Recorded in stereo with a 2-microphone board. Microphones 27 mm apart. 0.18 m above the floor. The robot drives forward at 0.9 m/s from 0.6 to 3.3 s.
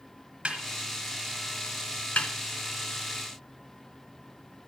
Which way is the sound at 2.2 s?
55° left (ahead or behind).